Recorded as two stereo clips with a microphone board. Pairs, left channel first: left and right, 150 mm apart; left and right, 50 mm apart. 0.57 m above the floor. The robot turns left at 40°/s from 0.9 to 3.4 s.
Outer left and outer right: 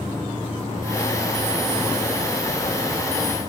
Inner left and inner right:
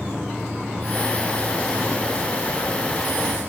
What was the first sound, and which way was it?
An insect, 50° left.